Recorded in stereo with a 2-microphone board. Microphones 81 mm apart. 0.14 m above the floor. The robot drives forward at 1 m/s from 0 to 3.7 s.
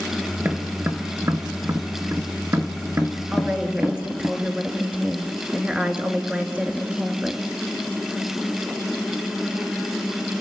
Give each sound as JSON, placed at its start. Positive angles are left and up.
{"t": 0.4, "sound": "tapping", "side_deg": -25, "distance_m": 2.0}
{"t": 3.3, "sound": "a woman speaking", "side_deg": -15, "distance_m": 2.5}